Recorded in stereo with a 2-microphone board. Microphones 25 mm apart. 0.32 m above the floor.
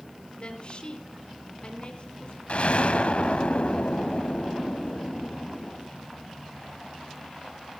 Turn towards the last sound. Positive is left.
turn(degrees=55)  # may be behind; listen again after turning